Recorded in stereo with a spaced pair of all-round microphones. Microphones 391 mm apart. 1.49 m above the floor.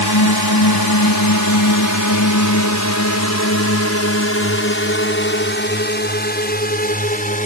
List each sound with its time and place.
0.0 s a drone: 70° left (ahead or behind); by 7.5 s 20° left (ahead or behind)